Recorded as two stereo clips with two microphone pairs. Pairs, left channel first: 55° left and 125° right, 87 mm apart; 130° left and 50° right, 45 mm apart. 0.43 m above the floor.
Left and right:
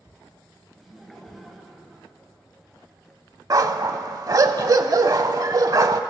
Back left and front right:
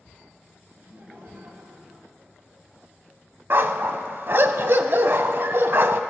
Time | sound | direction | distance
0.8 | laughter | 35° right | 3 m
3.5 | a dog barking | 80° right | 0.6 m